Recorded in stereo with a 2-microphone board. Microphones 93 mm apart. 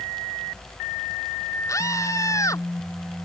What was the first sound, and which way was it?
A scream, 35° left (ahead or behind).